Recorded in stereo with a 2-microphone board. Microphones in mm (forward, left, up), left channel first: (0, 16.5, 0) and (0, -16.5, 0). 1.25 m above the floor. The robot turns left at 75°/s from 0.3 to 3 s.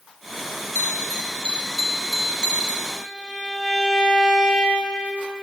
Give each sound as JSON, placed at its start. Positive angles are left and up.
{"t": 0.8, "sound": "a bell", "azimuth_deg": 90, "distance_m": 0.6}
{"t": 2.9, "sound": "a violin", "side_deg": 0, "distance_m": 1.7}